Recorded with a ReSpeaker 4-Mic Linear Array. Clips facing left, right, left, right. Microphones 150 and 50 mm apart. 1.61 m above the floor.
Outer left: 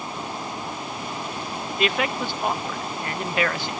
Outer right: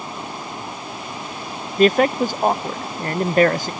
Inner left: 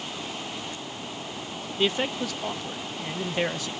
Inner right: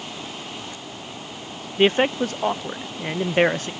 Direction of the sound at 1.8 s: 40° right (ahead or behind).